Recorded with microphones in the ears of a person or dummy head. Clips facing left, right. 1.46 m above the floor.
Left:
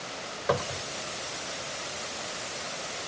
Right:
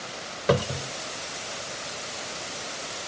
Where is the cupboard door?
40° right (ahead or behind).